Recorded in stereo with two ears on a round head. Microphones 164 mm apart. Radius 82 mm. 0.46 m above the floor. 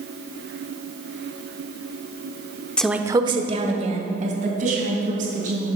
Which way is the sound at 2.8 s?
5° left (ahead or behind).